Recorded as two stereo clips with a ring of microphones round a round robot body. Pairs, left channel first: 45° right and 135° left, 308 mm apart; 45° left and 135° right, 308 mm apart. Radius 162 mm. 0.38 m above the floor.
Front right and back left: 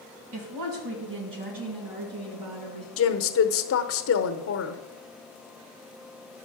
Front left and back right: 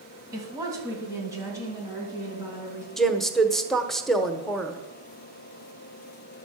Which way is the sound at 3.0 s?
45° right.